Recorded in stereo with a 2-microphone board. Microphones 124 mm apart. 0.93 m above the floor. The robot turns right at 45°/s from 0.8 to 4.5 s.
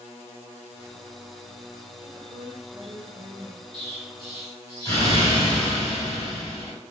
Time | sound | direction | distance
2.0 | a woman speaking | 40° right | 1.1 m
3.7 | an explosion | 110° left | 1.9 m